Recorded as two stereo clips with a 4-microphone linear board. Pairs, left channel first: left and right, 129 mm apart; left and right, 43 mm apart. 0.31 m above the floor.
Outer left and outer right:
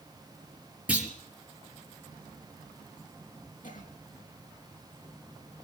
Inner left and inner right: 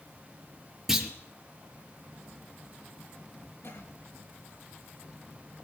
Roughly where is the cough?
Left.